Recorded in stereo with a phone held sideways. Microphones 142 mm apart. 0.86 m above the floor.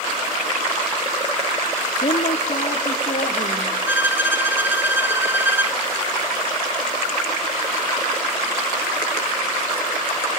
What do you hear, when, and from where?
2.0 s a woman speaking: 70° left (ahead or behind), 1.5 m; by 3.8 s 80° left, 2.5 m
3.9 s a violin: 15° right (ahead or behind), 0.9 m